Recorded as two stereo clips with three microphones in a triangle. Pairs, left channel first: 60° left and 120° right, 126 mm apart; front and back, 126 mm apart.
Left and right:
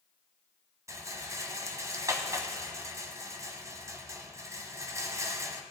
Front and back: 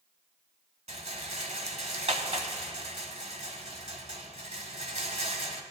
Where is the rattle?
Straight behind, 1.1 m.